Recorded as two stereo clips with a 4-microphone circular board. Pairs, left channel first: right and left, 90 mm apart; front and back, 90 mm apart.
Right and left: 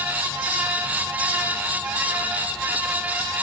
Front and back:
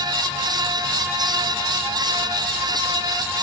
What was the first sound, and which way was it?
Only background noise.